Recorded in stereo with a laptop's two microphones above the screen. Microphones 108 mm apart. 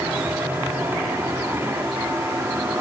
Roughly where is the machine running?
Right.